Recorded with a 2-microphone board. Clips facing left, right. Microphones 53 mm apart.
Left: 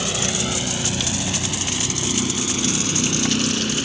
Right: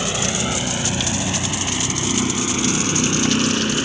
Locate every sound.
0.0 s a vehicle: 15° right (ahead or behind); by 3.9 s 30° right (ahead or behind)